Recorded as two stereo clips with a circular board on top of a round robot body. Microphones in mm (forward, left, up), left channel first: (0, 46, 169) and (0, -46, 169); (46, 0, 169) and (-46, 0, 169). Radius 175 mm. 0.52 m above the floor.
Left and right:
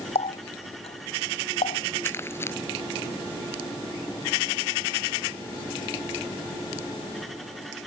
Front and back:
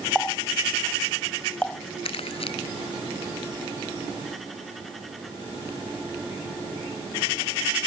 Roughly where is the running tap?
Left.